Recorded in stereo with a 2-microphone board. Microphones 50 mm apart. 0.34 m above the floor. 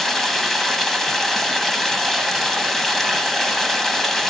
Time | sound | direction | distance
0.0 | running water | 5° left (ahead or behind) | 2 m